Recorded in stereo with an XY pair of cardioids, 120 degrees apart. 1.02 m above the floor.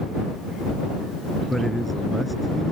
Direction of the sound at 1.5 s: 5° right.